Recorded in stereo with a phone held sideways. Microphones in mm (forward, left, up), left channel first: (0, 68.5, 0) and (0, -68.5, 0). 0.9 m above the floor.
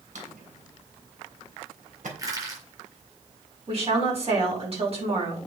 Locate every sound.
0.1 s a drawer: 70° right (ahead or behind), 3 m
2.2 s crushing: 25° right (ahead or behind), 6 m
3.7 s a woman speaking: 45° right (ahead or behind), 7 m